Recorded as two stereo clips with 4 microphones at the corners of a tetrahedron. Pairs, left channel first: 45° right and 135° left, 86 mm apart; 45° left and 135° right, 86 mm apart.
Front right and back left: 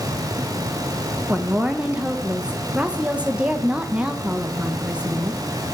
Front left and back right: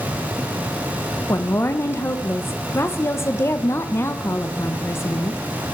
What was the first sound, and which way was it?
A woman speaking, 70° left.